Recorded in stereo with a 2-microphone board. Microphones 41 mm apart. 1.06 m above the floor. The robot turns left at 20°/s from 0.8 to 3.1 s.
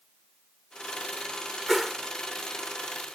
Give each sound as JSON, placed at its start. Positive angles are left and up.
{"t": 1.7, "sound": "a whoosh", "side_deg": 0}